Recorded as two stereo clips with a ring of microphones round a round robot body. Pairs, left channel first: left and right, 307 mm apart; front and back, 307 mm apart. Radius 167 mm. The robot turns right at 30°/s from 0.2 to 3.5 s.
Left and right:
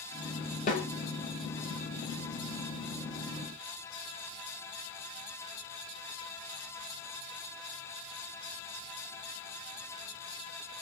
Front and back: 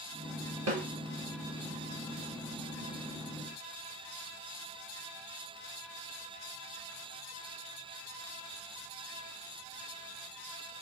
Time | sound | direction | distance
0.7 | a snare drum | 150° left | 1.7 m